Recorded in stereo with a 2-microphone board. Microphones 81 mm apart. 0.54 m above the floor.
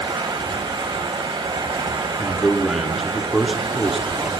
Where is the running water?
80° right, 0.8 m.